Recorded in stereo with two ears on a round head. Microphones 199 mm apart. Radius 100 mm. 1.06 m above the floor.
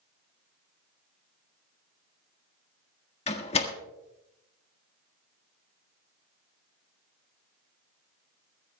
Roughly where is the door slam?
Left.